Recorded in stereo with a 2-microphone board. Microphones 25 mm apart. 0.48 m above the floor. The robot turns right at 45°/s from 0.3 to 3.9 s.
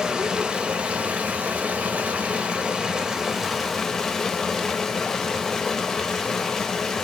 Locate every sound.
0.0 s running water: 150° right, 0.7 m; by 7.0 s 10° left, 0.7 m